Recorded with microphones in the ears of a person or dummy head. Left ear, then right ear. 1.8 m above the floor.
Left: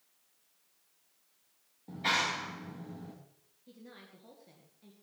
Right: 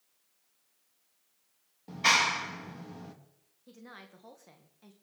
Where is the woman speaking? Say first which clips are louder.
Right 4 dB; 45° right (ahead or behind), 2.0 m.